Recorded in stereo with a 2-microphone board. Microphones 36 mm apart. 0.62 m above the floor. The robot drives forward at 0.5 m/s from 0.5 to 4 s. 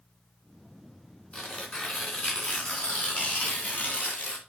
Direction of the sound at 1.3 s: 35° left (ahead or behind).